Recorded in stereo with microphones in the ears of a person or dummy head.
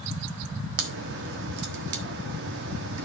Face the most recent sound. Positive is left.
turn(degrees=-60)  # may be behind; listen again after turning